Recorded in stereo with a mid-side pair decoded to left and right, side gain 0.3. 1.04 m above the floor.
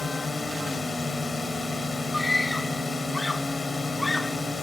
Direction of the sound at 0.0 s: 45° left.